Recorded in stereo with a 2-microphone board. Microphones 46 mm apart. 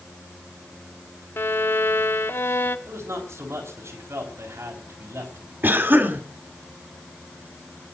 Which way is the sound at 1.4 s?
50° left (ahead or behind).